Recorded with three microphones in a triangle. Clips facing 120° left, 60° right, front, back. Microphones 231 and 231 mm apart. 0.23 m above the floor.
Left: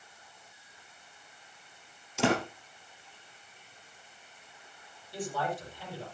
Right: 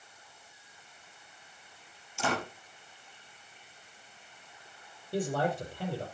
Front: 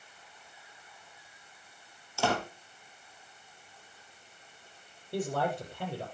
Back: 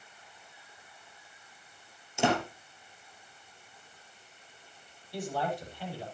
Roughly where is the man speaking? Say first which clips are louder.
Right 5 dB, front 2 dB; ahead right.